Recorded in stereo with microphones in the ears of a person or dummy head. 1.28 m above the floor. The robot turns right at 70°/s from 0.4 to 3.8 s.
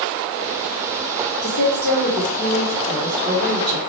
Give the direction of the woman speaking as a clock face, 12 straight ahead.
9 o'clock.